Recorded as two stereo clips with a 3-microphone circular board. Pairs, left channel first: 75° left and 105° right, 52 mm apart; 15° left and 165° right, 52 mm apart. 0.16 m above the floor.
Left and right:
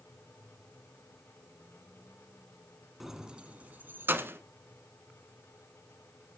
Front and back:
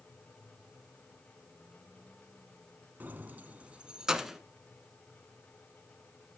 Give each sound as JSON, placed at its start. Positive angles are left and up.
{"t": 3.0, "sound": "keys jangling", "azimuth_deg": 170, "distance_m": 1.0}